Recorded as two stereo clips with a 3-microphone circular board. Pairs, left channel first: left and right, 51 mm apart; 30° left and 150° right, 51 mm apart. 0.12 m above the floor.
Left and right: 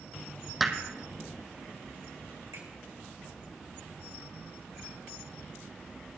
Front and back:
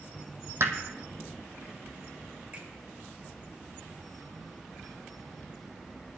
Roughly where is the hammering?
Behind.